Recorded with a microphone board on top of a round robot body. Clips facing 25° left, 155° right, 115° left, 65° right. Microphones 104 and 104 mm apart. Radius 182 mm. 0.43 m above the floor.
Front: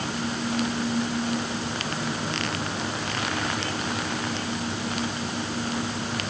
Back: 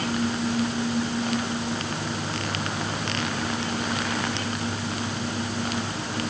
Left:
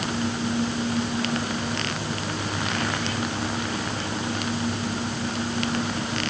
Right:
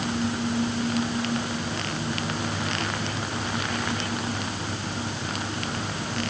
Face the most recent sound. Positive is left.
No sound to turn to.